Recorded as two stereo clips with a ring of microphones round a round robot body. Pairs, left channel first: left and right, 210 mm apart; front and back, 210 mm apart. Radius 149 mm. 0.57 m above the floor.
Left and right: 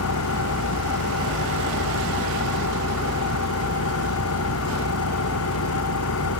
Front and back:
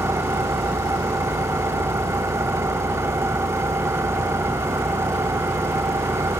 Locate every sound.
0.0 s an engine running: 100° left